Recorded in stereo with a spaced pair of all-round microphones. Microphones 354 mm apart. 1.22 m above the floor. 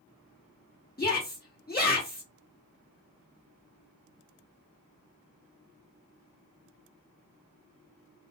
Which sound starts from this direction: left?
A shout, at 1.0 s.